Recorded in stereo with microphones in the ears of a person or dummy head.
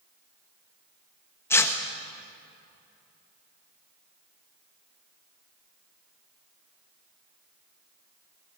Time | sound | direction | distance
1.5 | tearing paper | 15° left (ahead or behind) | 1.5 m